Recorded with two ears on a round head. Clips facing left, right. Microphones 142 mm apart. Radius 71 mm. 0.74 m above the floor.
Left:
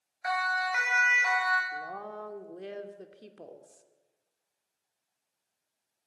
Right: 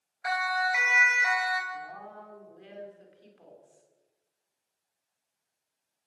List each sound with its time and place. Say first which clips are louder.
0.2 s a siren: right 1 dB; 5° right (ahead or behind), 4.5 m; by 1.6 s 10° right (ahead or behind), 3.5 m
1.7 s a woman speaking: left 2 dB; 65° left (ahead or behind), 2.5 m